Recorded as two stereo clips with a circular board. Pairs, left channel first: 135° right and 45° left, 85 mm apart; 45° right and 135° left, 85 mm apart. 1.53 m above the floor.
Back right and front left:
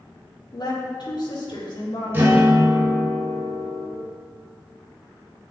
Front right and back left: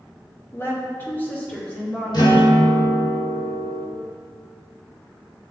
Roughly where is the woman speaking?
Right.